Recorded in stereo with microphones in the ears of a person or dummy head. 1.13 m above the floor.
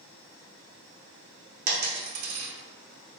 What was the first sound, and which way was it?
A dropped coin, 50° right (ahead or behind).